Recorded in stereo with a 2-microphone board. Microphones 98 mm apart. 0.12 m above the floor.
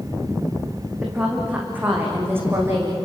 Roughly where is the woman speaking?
Centre.